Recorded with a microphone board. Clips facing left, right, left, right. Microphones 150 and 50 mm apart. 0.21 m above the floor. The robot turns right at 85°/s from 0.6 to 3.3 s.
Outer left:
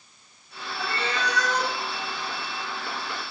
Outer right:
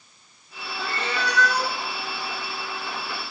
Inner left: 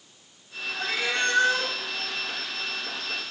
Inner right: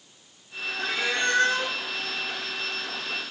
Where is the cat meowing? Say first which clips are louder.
Even, even; 150° right, 1.6 m; by 1.7 s 70° right, 1.6 m.